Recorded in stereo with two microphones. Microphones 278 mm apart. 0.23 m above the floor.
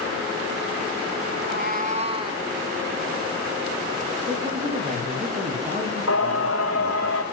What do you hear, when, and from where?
1.3 s a cat meowing: 45° right (ahead or behind), 1.1 m; by 2.5 s 15° right (ahead or behind), 1.7 m
4.3 s a man speaking: 25° right (ahead or behind), 6.5 m
6.1 s singing: 55° left (ahead or behind), 4.5 m